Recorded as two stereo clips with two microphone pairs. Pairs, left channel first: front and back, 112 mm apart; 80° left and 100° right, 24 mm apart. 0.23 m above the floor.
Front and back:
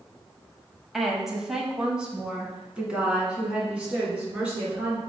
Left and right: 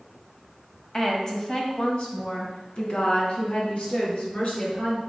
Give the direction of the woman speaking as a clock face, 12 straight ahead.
9 o'clock.